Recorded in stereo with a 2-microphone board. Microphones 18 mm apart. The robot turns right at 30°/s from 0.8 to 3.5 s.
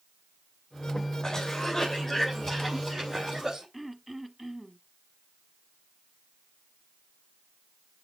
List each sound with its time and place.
1.2 s a cough: 135° left, 3.5 m; by 3.6 s 155° right, 3.5 m
3.7 s throat clearing: 5° right (ahead or behind), 0.9 m